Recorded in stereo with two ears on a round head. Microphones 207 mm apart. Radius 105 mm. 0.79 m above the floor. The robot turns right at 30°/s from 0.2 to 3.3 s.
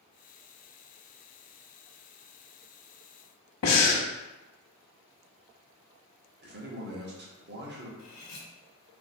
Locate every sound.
3.6 s breathing: 80° left, 0.7 m
6.4 s a man speaking: 50° right (ahead or behind), 0.8 m
8.0 s cutlery clinking: 75° left (ahead or behind), 0.9 m